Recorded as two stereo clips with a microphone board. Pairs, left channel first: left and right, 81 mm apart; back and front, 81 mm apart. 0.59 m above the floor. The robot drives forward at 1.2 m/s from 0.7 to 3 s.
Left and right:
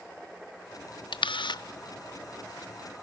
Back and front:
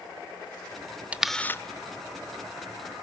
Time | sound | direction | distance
1.1 | a camera shutter | 75° left | 0.6 m